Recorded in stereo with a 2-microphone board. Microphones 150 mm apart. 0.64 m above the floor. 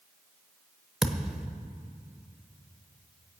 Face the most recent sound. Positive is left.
turn(degrees=-5)  # may be behind; listen again after turning